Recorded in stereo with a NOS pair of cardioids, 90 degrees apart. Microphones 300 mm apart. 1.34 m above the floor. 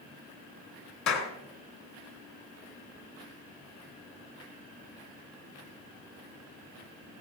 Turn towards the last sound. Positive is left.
turn(degrees=65)